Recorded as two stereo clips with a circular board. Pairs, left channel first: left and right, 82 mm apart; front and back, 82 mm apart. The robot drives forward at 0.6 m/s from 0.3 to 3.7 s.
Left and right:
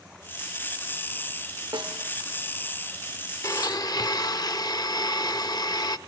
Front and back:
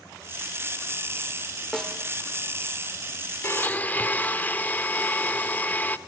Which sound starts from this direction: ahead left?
A blender, at 3.4 s.